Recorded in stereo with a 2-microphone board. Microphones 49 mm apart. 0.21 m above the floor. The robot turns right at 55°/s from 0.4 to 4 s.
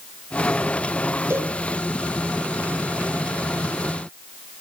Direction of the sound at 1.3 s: 55° right (ahead or behind).